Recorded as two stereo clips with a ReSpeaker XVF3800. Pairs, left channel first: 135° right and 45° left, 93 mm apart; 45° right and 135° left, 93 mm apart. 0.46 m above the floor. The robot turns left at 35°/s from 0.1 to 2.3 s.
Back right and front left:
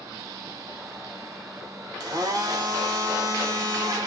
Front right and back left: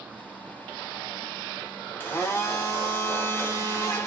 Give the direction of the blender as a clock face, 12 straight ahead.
11 o'clock.